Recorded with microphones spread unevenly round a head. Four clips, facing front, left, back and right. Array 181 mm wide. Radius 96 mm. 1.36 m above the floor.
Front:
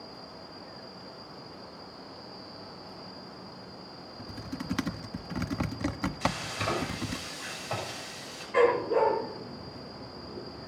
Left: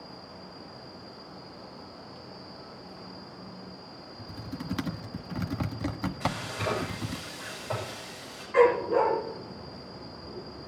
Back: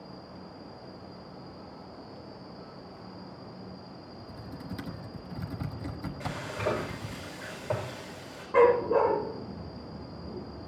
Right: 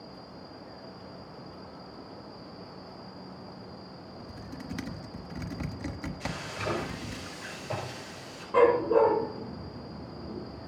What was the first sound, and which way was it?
Typing on a keyboard, 35° left.